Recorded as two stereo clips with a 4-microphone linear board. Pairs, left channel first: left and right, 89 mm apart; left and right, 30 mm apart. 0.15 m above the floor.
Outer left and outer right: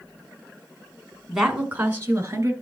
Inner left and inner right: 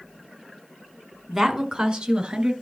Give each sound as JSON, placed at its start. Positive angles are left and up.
{"t": 1.3, "sound": "a woman speaking", "side_deg": -5, "distance_m": 1.4}